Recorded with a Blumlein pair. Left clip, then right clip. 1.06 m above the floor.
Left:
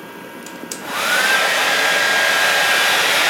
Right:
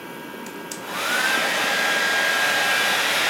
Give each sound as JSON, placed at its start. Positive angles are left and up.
{"t": 0.5, "sound": "a hair dryer", "azimuth_deg": 15, "distance_m": 0.6}